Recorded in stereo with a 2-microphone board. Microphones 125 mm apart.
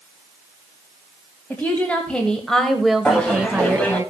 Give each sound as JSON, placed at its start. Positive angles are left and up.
{"t": 1.5, "sound": "a woman speaking", "side_deg": 15, "distance_m": 2.0}
{"t": 3.0, "sound": "laughter", "side_deg": 10, "distance_m": 2.5}